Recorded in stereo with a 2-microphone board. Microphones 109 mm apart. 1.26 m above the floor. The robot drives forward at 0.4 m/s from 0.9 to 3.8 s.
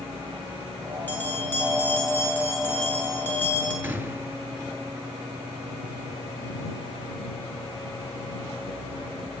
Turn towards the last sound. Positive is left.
turn(degrees=-20)  # may be behind; listen again after turning